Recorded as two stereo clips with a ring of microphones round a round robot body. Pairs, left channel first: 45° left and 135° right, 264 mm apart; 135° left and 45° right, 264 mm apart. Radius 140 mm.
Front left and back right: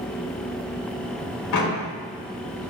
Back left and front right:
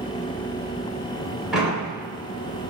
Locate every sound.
1.5 s a door slam: 45° left, 3 m